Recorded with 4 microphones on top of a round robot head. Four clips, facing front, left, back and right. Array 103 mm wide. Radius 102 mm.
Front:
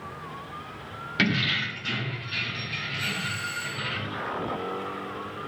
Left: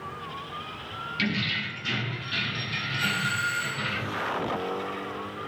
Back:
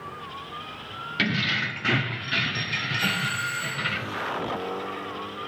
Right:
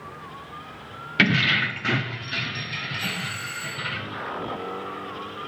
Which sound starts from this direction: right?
Keys jangling, at 1.2 s.